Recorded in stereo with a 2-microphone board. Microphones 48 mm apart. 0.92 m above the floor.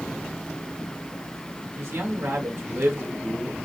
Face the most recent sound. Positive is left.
turn(degrees=-65)  # may be behind; listen again after turning